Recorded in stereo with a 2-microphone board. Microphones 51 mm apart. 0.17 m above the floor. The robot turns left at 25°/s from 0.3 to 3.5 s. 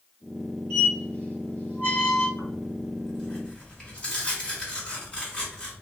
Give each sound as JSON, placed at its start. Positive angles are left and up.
{"t": 0.7, "sound": "a squeak", "side_deg": 15, "distance_m": 1.4}
{"t": 2.4, "sound": "tearing paper", "side_deg": 10, "distance_m": 1.6}